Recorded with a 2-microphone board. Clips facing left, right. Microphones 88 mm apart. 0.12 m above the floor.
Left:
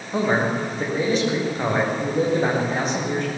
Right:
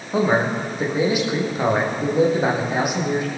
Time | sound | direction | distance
0.1 | a man speaking | 10° right (ahead or behind) | 6.5 m